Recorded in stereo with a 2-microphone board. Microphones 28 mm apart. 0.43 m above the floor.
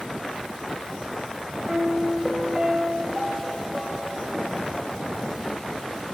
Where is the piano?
35° right (ahead or behind), 1.4 m.